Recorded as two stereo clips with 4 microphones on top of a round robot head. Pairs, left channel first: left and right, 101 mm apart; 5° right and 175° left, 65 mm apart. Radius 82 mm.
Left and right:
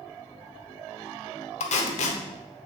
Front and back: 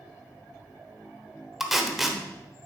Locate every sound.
1.6 s tape being pulled: 90° left, 1.2 m